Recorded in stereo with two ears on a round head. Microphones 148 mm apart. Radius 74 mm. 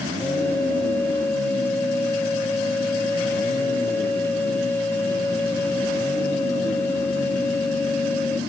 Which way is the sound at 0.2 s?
10° left (ahead or behind).